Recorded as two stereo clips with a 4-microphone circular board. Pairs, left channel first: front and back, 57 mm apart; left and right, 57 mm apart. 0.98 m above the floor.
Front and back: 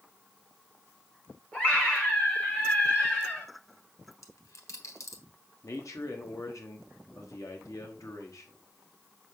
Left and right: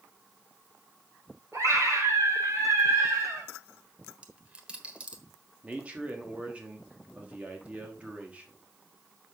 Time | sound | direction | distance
1.5 | a scream | 60° right | 5.5 m
4.1 | a dropped coin | 20° right | 1.4 m
5.6 | a man speaking | 25° right | 1.3 m